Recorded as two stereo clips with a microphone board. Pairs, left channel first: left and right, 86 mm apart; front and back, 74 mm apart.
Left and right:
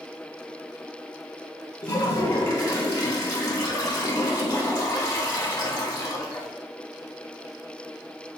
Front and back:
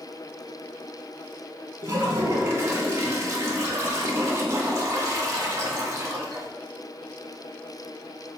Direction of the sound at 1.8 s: 135° left.